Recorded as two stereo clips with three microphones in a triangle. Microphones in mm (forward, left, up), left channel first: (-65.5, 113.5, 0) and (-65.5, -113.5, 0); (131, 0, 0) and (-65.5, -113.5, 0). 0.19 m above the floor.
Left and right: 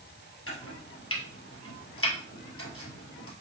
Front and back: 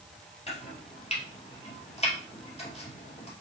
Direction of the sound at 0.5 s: 90° left.